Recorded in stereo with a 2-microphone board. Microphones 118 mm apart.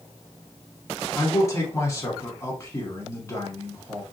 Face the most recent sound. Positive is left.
turn(degrees=25)  # may be behind; listen again after turning